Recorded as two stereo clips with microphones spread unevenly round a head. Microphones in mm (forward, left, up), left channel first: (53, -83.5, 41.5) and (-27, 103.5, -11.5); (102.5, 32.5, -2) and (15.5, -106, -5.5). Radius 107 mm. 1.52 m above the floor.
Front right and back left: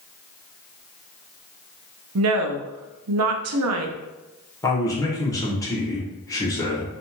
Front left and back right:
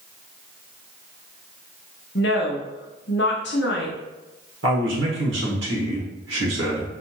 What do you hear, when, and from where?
2.1 s a woman speaking: 100° left, 0.6 m
4.6 s a man speaking: 145° right, 1.4 m